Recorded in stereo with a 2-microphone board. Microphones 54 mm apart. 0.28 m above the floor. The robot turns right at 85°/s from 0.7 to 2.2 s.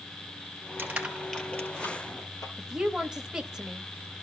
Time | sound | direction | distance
0.8 | crushing | 40° right (ahead or behind) | 3 m
2.6 | a woman speaking | 15° right (ahead or behind) | 1.0 m